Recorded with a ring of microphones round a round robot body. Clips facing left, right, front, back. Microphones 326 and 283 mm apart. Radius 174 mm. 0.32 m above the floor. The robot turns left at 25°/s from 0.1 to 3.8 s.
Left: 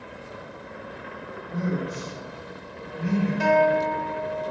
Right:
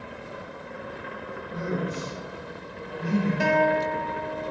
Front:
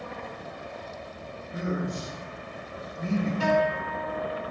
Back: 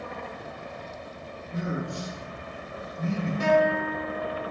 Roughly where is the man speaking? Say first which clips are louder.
Left 1 dB, front 1 dB; ahead left.